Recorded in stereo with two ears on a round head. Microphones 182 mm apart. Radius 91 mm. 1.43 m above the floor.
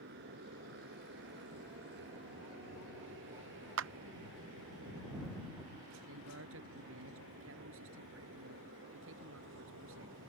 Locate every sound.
0.0 s a motorcycle: 55° right (ahead or behind); by 10.3 s 70° right (ahead or behind)
3.8 s a clap: 65° right (ahead or behind)
6.1 s a man speaking: 75° right (ahead or behind)